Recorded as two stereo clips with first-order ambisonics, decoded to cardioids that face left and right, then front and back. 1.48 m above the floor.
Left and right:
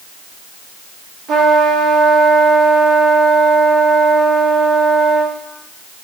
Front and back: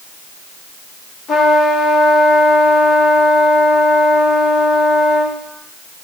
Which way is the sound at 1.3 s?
50° right.